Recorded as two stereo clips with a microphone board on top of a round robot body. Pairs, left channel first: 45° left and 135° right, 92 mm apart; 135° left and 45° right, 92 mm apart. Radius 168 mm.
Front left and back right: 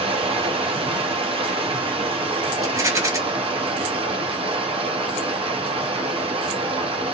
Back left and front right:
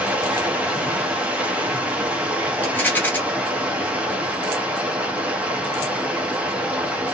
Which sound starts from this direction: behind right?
Running water, at 0.0 s.